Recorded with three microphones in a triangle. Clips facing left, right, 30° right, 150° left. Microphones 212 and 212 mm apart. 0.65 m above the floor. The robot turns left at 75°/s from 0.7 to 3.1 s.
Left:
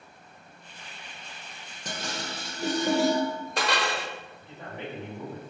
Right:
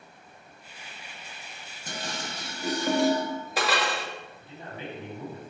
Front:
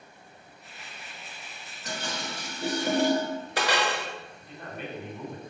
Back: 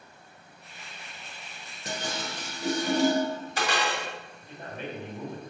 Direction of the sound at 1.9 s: 90° left.